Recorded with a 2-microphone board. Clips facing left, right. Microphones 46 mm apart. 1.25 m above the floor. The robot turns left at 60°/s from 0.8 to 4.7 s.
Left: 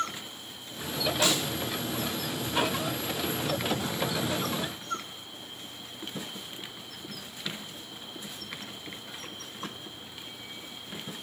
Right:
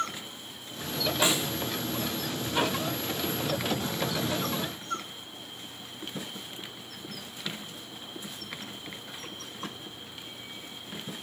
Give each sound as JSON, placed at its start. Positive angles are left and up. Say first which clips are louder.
{"t": 1.2, "sound": "a snare drum", "louder": "right 1 dB", "side_deg": -25, "distance_m": 3.0}